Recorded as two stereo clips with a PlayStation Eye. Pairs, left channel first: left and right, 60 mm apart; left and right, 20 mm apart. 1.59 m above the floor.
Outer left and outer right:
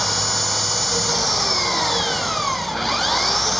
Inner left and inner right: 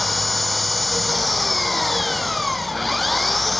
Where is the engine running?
Centre (ahead or behind).